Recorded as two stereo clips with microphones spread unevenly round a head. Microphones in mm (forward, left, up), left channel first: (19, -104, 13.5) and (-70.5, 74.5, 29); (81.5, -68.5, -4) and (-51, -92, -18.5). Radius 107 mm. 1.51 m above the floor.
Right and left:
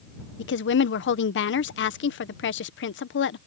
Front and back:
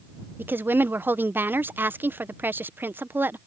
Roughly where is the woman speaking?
Right.